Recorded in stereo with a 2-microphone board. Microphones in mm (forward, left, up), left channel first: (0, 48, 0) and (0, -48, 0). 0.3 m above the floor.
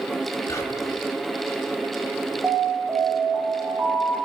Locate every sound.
0.5 s whispering: 35° left (ahead or behind), 1.4 m
2.4 s an alarm: 20° right (ahead or behind), 1.6 m